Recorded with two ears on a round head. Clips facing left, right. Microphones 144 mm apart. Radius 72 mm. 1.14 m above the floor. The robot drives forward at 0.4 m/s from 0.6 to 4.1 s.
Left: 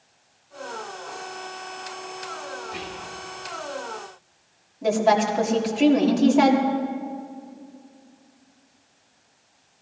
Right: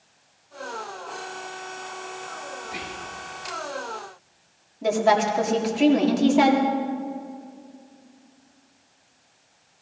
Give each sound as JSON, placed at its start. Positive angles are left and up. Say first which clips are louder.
{"t": 2.6, "sound": "whispering", "louder": "left 1 dB", "side_deg": -20, "distance_m": 2.0}
{"t": 4.8, "sound": "a woman speaking", "louder": "even", "side_deg": 0, "distance_m": 2.0}